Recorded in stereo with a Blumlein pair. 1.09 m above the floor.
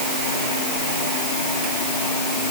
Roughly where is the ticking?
No ticking in this recording.